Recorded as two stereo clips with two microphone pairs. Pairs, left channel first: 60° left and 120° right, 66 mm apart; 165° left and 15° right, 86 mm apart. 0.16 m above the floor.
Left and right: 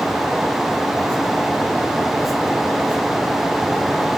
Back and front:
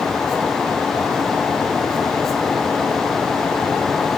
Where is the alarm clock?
No alarm clock in this recording.